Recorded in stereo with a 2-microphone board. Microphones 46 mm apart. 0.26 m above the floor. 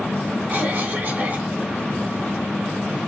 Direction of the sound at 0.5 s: 30° right (ahead or behind).